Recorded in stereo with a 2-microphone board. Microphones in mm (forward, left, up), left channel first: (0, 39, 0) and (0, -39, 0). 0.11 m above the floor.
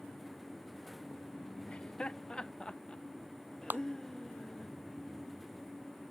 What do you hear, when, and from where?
1.7 s laughter: 15° left (ahead or behind); by 4.7 s 10° left (ahead or behind)
3.7 s a clap: 25° right (ahead or behind)